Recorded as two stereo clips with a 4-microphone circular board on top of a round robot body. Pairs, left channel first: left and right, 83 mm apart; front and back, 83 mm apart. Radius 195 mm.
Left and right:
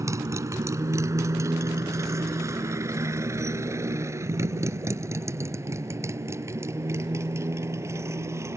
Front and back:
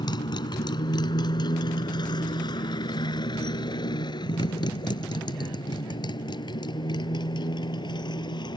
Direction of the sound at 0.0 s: 35° right.